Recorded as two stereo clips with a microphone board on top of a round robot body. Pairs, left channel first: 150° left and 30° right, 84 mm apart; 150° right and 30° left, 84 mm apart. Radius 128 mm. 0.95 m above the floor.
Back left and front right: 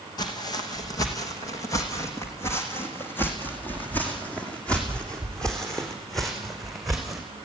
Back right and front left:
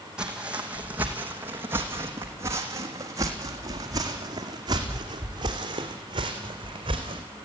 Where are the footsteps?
110° left, 3.5 m; by 7.2 s 60° left, 4.5 m.